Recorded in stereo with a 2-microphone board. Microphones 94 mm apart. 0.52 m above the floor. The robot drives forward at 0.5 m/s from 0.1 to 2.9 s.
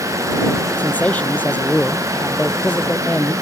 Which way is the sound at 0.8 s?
15° left (ahead or behind).